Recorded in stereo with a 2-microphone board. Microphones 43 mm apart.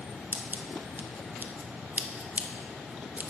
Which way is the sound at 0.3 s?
45° right (ahead or behind).